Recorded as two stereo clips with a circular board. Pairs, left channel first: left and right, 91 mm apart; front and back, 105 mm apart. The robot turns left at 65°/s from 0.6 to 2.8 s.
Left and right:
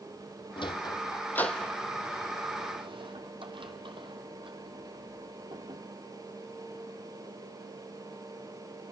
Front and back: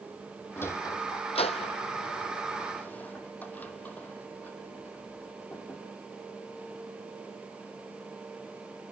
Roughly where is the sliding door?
Left.